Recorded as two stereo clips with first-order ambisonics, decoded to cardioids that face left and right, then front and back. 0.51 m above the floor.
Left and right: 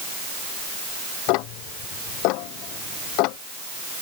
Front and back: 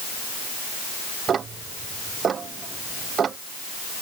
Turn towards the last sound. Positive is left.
turn(degrees=115)